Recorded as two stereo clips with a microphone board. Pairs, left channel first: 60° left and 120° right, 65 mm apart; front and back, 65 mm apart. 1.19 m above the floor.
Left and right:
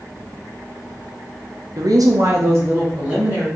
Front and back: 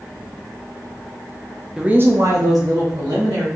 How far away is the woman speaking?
About 0.6 m.